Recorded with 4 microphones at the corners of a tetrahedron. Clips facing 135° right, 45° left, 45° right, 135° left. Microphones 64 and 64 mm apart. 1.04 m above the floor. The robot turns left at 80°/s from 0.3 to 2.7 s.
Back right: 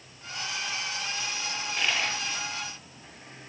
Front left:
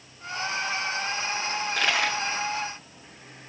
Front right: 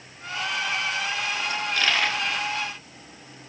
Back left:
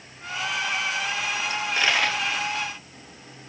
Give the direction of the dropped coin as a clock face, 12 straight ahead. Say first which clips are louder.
Front left 4 dB, back left 1 dB; 9 o'clock.